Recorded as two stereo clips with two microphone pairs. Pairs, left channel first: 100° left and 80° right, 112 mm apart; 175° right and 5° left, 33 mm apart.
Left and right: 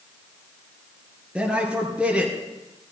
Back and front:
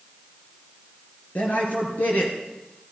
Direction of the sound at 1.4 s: 160° right.